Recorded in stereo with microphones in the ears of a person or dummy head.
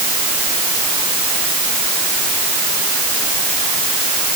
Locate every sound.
Only background noise.